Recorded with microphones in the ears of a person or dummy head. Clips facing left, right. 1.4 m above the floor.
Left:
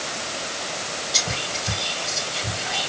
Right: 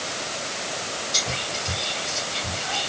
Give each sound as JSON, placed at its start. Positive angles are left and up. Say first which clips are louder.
{"t": 1.1, "sound": "whispering", "louder": "left 1 dB", "side_deg": 5, "distance_m": 2.0}